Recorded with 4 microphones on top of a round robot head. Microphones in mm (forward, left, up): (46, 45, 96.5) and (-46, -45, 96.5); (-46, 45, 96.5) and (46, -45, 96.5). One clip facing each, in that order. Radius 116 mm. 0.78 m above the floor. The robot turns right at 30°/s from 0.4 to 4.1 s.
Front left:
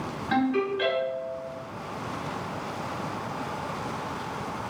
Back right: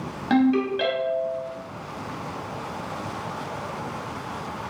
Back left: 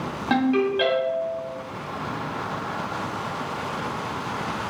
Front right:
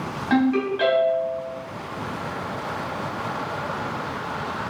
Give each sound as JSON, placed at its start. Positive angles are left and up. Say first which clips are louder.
{"t": 0.3, "sound": "a ringtone", "louder": "back right 5 dB, front right 1 dB", "azimuth_deg": -155, "distance_m": 0.8}